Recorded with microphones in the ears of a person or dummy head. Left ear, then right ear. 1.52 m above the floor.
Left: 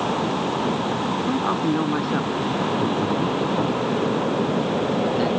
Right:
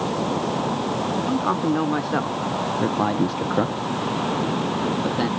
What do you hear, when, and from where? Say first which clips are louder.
1.2 s a man speaking: even; 15° right (ahead or behind); by 5.3 s 10° right (ahead or behind)